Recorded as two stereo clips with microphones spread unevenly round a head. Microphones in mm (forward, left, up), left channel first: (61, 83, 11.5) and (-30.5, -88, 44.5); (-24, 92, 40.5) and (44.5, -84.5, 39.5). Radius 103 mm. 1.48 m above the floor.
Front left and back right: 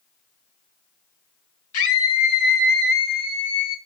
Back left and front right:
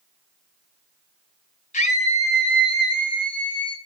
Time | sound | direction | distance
1.7 | a scream | 60° left | 5.5 m